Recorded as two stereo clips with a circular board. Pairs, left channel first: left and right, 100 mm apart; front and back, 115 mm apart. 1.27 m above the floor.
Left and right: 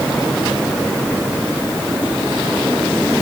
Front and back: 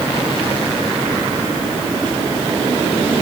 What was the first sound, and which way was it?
Only background noise.